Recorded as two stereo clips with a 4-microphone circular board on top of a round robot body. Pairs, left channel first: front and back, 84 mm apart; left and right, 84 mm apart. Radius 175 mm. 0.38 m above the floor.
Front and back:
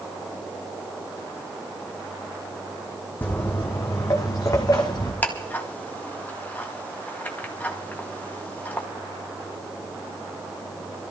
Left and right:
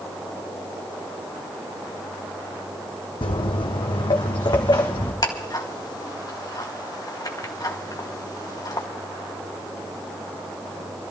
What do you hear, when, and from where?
3.2 s footsteps: 70° left, 1.3 m; by 5.1 s 45° left, 2 m
5.2 s ticking: 65° left, 2 m